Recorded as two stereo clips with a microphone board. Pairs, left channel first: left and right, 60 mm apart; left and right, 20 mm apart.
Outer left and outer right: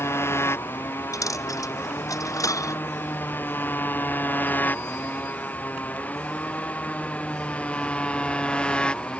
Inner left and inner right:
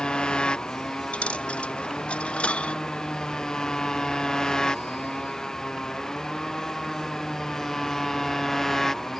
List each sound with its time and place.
0.0 s a motorcycle: 45° left (ahead or behind); by 9.2 s 15° left (ahead or behind)
1.1 s a dropped coin: 70° left (ahead or behind)